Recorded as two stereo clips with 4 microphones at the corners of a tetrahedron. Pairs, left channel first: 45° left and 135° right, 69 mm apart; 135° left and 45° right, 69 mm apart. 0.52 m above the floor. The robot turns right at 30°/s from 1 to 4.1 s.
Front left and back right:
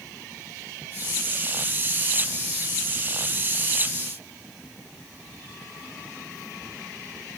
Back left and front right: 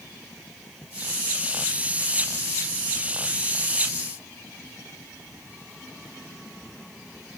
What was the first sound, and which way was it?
Only background noise.